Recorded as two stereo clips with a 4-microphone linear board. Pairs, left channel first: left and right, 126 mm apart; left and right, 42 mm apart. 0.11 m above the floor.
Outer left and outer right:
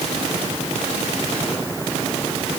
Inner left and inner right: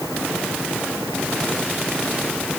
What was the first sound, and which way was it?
Only background noise.